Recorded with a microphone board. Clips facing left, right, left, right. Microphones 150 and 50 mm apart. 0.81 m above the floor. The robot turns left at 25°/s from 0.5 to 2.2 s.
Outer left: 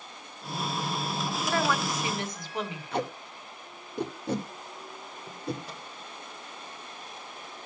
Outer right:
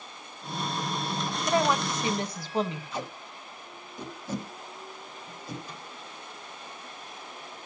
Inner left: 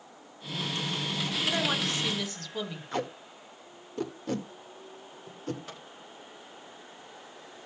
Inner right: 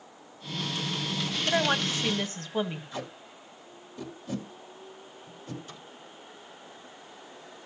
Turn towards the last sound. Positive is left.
turn(degrees=85)